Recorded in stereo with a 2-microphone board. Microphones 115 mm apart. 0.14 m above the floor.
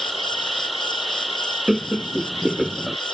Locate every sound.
0.0 s an insect: centre (ahead or behind)
1.7 s laughter: 5° right (ahead or behind)